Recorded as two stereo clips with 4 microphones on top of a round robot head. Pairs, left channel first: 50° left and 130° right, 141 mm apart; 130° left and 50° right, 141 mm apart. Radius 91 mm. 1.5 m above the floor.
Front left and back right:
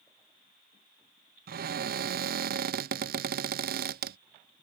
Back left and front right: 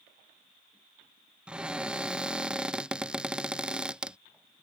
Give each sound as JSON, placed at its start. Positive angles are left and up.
{"t": 1.5, "sound": "a cupboard door", "azimuth_deg": -135}